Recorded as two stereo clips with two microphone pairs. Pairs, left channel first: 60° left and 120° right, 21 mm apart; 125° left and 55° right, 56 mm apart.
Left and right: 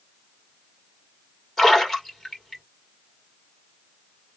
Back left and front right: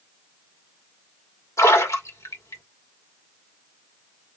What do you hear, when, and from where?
1.6 s a splash: 130° left, 2.0 m